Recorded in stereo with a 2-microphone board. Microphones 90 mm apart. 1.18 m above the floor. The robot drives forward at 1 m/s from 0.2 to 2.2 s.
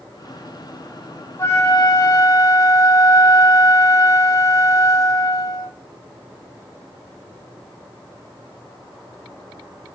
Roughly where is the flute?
Left.